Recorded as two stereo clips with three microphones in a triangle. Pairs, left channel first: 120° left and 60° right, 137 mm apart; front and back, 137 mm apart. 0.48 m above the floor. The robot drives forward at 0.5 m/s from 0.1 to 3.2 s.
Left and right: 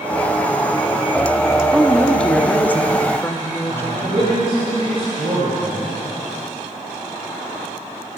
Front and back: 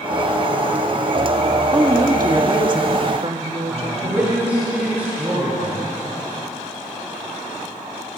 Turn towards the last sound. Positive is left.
turn(degrees=-100)